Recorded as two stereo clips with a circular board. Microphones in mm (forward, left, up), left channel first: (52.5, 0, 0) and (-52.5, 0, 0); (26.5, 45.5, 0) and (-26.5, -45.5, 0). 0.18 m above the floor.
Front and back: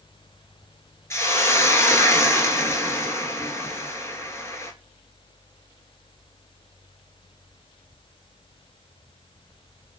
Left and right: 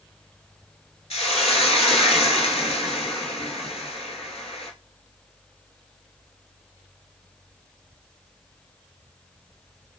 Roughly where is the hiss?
Ahead left.